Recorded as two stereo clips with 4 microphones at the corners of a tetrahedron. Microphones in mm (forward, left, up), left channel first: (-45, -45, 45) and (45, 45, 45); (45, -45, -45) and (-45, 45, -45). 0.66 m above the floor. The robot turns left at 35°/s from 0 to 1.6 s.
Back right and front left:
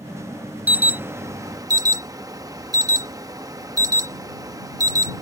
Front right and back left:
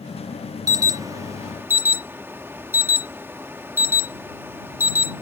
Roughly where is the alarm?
Left.